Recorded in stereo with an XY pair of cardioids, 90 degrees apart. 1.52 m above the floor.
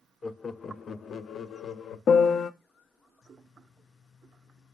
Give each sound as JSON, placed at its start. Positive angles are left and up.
{"t": 0.2, "sound": "laughter", "azimuth_deg": 25, "distance_m": 0.8}
{"t": 2.1, "sound": "a piano", "azimuth_deg": 65, "distance_m": 0.8}